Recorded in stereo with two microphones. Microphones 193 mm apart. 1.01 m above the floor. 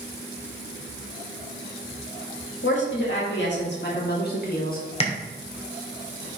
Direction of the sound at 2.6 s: 70° left (ahead or behind).